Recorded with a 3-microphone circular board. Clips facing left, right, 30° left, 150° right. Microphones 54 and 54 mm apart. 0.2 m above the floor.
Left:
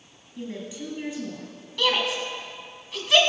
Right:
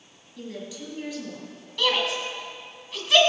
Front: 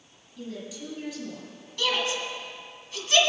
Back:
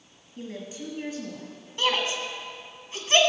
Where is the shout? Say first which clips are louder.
Even, back 1 dB; straight behind, 1.8 m.